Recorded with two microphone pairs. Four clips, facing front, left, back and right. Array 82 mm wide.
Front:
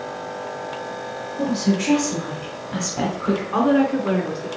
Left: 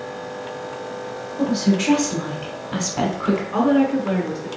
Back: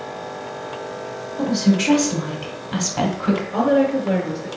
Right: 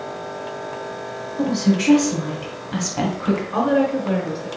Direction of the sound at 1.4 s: 170° left.